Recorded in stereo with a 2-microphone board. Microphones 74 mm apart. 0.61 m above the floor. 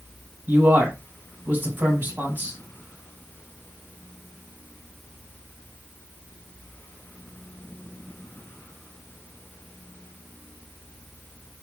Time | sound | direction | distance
0.5 | a man speaking | 25° right (ahead or behind) | 2.5 m